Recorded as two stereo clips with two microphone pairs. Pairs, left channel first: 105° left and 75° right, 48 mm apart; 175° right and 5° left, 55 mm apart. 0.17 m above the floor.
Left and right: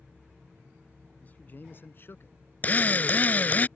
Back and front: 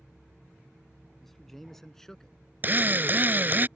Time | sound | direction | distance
1.2 | a man speaking | 105° left | ?
2.6 | a drill | 55° left | ?